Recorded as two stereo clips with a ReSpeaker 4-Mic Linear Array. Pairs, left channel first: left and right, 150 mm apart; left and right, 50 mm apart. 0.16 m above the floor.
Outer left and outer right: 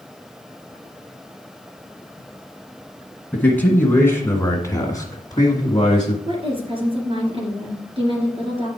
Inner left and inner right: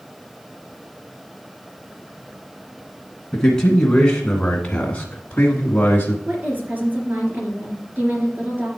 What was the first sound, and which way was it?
A man speaking, 10° left (ahead or behind).